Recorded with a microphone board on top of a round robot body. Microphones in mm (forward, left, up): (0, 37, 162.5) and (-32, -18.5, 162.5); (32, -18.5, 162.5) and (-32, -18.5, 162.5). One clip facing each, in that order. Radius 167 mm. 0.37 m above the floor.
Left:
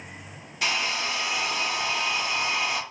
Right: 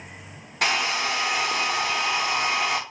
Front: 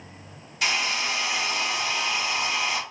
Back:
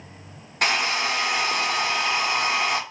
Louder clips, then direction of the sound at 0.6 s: Right 4 dB, back 3 dB; 145° right.